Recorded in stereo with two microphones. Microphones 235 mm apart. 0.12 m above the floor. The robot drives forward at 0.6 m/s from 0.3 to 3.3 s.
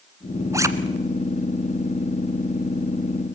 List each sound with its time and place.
0.5 s a zipper: 15° right (ahead or behind), 1.4 m